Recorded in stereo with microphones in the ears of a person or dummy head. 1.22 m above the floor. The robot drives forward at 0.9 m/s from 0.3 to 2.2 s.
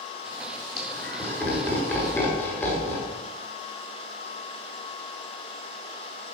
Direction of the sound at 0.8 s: 10° left (ahead or behind).